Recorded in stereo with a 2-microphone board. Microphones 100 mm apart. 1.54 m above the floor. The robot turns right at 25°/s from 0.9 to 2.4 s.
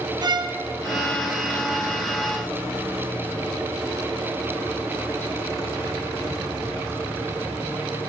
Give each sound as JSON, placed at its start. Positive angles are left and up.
{"t": 0.2, "sound": "a violin", "side_deg": -40, "distance_m": 1.0}